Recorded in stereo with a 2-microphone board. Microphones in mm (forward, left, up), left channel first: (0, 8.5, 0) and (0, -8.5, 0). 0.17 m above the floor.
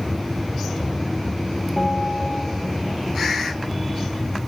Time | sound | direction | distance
1.8 | a bell | 30° left (ahead or behind) | 9.5 m